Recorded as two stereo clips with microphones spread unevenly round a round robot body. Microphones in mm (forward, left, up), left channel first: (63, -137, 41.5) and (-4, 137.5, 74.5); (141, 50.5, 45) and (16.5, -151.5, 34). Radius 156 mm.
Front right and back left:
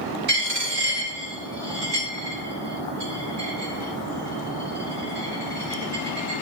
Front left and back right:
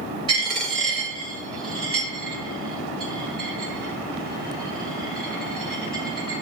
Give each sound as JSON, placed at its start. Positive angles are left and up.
{"t": 0.3, "sound": "a dropped coin", "azimuth_deg": 165, "distance_m": 2.0}